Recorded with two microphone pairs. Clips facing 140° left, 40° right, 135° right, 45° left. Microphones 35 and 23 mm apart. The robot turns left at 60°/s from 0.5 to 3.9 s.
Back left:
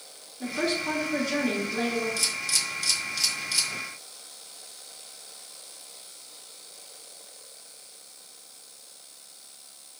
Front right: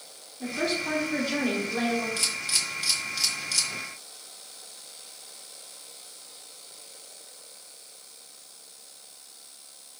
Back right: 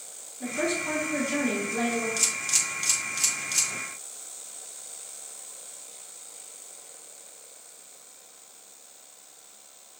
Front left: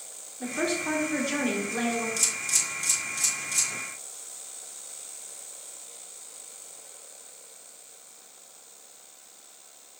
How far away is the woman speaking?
About 2 m.